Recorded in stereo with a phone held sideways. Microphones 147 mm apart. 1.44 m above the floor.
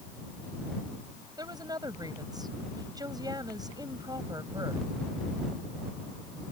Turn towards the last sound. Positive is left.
turn(degrees=-25)  # may be behind; listen again after turning